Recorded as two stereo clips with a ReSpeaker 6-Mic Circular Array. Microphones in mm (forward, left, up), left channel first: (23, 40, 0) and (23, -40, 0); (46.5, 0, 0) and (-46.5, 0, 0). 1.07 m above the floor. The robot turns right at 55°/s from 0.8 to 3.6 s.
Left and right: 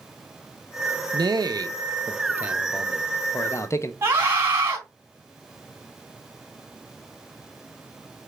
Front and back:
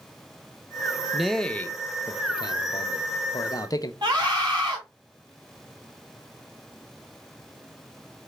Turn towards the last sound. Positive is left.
turn(degrees=-150)